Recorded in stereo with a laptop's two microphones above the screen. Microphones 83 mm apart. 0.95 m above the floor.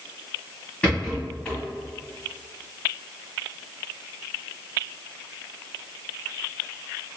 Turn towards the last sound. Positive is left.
turn(degrees=15)  # may be behind; listen again after turning